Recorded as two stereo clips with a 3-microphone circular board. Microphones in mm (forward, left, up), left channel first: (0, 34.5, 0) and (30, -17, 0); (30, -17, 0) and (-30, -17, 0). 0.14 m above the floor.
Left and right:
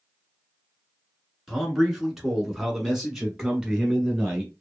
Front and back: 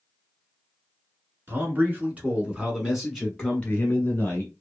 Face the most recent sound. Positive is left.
turn(degrees=10)